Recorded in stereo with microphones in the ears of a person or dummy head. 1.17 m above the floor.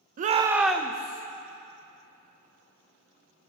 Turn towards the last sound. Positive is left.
turn(degrees=20)  # may be behind; listen again after turning